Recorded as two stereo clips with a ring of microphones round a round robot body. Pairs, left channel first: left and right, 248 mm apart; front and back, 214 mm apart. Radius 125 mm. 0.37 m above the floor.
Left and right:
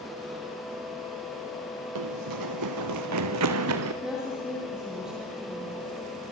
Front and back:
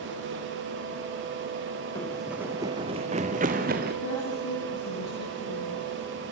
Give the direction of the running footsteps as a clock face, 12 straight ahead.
3 o'clock.